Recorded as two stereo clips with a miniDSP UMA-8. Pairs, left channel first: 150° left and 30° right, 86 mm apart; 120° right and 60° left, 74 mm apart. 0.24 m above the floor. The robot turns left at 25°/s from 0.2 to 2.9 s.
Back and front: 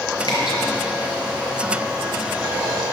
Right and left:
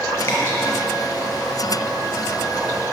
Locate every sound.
0.2 s dripping: 170° right, 5.5 m; by 0.6 s straight behind, 5.5 m